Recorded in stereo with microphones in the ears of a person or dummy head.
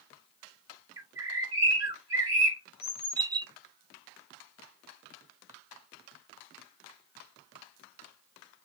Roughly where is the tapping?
I don't hear tapping.